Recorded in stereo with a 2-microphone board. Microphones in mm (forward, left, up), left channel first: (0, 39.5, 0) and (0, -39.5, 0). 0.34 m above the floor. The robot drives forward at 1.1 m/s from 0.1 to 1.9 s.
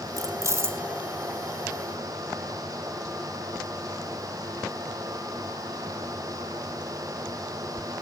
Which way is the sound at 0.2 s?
45° right (ahead or behind).